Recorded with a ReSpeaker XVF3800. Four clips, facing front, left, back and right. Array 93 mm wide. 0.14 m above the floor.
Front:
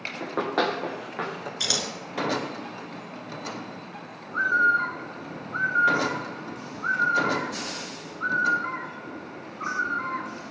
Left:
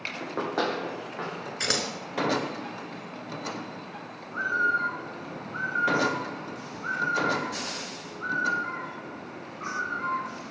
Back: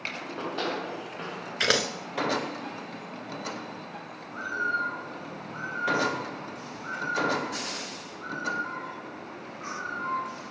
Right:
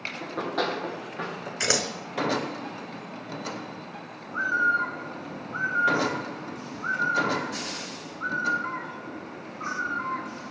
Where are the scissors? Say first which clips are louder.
Right 3 dB, back 8 dB; 170° right, 1.3 m.